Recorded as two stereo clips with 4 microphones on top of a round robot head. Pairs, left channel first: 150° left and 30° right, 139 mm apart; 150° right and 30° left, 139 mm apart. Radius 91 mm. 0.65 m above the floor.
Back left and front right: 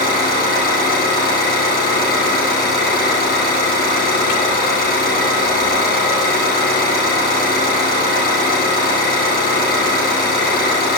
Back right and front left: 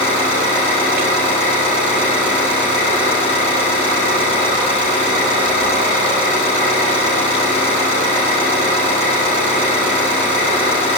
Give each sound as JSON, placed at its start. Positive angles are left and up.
{"t": 0.0, "sound": "an engine running", "azimuth_deg": 165, "distance_m": 5.5}